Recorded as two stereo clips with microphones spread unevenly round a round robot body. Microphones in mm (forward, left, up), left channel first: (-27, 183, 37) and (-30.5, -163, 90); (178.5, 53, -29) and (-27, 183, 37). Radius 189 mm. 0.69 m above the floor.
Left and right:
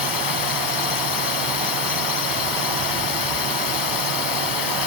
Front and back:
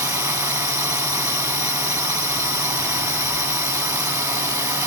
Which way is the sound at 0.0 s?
70° left.